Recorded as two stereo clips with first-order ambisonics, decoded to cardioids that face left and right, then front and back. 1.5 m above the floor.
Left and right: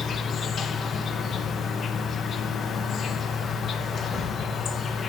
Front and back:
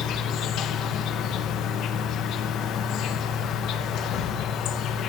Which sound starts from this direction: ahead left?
An insect, at 0.0 s.